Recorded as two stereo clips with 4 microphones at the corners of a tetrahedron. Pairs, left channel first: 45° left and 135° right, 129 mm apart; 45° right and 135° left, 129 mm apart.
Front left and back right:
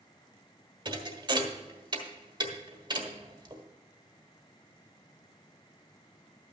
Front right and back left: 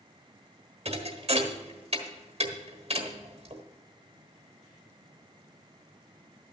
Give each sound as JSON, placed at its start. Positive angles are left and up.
{"t": 0.8, "sound": "a thud", "azimuth_deg": 170, "distance_m": 1.3}